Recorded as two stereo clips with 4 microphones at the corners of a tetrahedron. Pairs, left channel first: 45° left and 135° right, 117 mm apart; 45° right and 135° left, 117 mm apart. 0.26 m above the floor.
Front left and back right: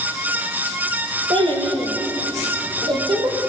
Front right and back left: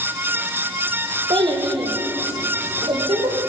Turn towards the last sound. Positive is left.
turn(degrees=175)